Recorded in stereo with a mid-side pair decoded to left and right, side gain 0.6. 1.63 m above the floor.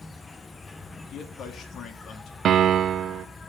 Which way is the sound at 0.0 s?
20° left.